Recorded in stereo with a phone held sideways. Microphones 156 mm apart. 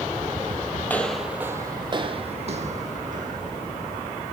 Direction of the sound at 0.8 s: 15° left (ahead or behind).